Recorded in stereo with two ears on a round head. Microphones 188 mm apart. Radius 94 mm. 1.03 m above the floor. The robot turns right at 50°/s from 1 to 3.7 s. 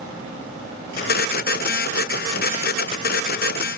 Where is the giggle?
No giggle in this recording.